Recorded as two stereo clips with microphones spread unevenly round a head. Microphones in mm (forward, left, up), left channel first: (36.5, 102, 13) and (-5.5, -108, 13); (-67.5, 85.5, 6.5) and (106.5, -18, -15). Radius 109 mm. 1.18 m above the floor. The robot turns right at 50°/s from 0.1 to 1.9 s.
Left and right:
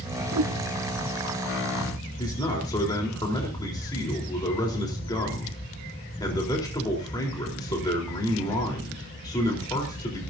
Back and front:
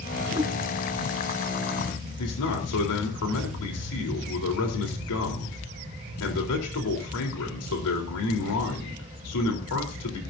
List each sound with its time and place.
0.3 s a whoosh: 105° right, 1.5 m; by 0.6 s 90° right, 1.5 m
2.2 s a man speaking: 150° left, 4 m